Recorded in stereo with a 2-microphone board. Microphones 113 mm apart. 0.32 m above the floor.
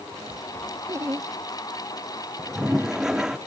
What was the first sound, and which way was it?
Laughter, 25° right (ahead or behind).